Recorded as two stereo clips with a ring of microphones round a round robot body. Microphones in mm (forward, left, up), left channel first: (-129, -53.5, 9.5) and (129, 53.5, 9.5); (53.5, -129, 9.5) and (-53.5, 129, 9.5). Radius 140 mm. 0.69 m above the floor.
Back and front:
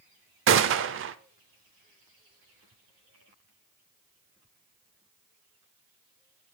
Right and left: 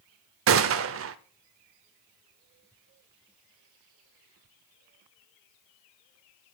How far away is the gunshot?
About 0.7 m.